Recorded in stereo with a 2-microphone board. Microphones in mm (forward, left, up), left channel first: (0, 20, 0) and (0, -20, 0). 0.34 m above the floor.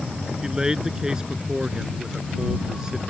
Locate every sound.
0.4 s a man speaking: 15° right (ahead or behind)